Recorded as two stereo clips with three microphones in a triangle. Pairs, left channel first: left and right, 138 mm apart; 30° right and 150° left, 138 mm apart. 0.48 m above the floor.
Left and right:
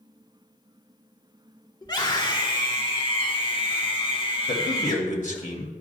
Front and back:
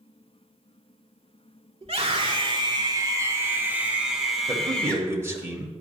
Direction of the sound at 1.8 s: 130° left.